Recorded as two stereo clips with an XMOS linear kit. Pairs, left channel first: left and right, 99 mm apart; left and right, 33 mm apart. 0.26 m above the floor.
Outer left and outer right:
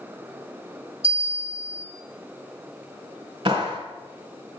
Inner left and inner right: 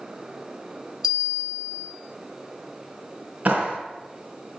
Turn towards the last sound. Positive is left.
turn(degrees=-50)  # may be behind; listen again after turning